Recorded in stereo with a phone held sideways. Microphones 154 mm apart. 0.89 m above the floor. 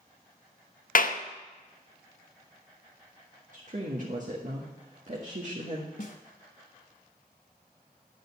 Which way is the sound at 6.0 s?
55° left (ahead or behind).